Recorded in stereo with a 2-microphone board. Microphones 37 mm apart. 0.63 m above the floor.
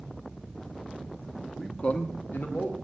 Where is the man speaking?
5° right (ahead or behind), 0.6 m; by 2.8 s 70° left (ahead or behind), 1.5 m.